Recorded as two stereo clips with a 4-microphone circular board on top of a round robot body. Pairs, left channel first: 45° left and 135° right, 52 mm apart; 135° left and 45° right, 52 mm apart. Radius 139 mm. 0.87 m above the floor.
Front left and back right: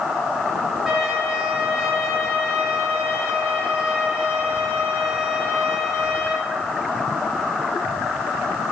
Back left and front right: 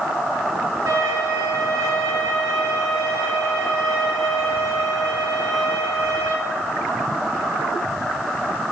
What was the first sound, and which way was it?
A violin, 55° right.